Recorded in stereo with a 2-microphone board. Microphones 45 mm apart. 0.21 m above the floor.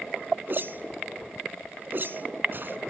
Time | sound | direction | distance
0.5 | a whoosh | 45° right (ahead or behind) | 0.7 m